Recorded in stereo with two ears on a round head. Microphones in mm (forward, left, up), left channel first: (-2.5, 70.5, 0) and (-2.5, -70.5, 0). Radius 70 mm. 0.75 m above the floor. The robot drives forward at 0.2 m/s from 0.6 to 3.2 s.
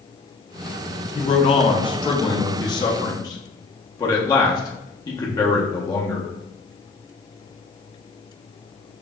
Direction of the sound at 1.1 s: 35° left (ahead or behind).